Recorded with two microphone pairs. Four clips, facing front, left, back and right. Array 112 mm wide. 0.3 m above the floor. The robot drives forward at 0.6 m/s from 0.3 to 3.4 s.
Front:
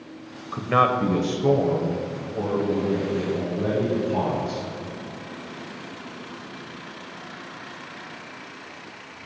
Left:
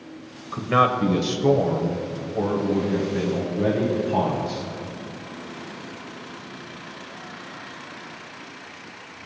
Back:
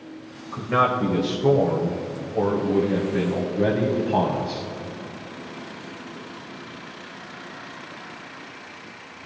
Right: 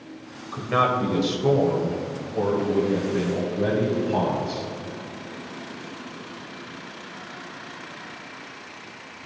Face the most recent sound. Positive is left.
turn(degrees=175)